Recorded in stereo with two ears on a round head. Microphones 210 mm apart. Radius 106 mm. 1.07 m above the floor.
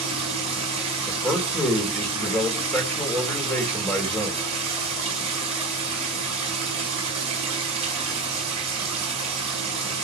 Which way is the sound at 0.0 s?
25° right (ahead or behind).